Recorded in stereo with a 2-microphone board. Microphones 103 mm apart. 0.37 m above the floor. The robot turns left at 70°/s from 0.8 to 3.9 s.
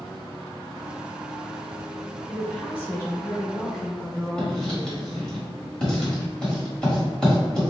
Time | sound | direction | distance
2.3 | a woman speaking | 10° left (ahead or behind) | 0.8 m
4.4 | writing | 10° left (ahead or behind) | 1.5 m